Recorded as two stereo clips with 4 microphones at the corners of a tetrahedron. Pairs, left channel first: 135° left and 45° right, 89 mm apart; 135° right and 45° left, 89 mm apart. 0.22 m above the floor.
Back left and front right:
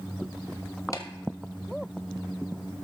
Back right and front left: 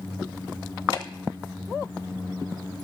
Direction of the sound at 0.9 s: 170° right.